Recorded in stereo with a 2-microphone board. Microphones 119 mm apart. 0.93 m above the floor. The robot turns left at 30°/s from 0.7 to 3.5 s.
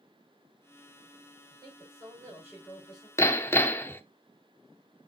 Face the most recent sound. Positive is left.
turn(degrees=20)  # may be behind; listen again after turning